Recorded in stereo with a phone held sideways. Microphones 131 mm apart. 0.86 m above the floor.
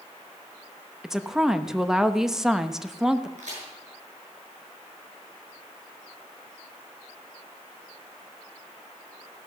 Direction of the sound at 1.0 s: 5° right (ahead or behind).